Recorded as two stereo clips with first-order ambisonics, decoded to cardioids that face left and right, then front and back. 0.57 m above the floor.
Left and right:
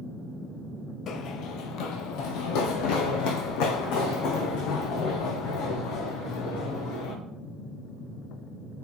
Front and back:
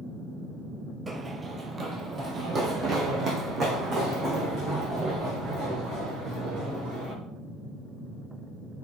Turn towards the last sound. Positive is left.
turn(degrees=115)